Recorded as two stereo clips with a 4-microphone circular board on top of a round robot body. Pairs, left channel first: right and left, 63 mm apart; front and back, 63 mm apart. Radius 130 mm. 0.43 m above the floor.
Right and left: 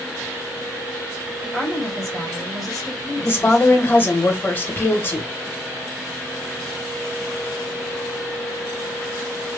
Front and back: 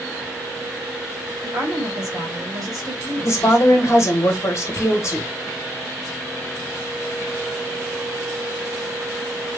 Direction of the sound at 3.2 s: 35° right.